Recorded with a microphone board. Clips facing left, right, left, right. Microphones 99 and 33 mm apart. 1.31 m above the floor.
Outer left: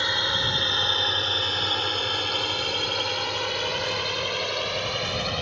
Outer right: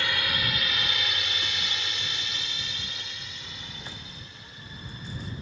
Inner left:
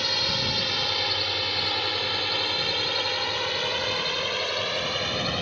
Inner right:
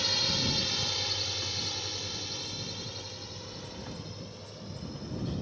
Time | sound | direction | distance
0.0 | a drone | 20° left (ahead or behind) | ?